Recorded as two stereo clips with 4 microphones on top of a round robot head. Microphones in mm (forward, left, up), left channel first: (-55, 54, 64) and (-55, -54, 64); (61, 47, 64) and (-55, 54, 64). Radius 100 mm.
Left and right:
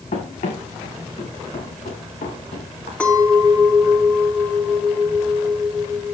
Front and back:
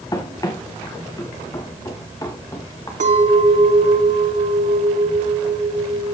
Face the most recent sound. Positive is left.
turn(degrees=170)